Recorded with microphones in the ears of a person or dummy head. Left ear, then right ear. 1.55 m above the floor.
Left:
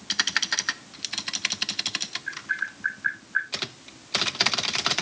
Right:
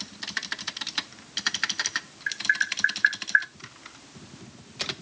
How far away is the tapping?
About 5 m.